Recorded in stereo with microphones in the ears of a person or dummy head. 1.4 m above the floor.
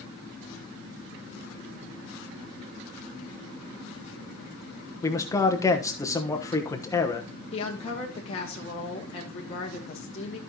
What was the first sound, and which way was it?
A man speaking, 15° left (ahead or behind).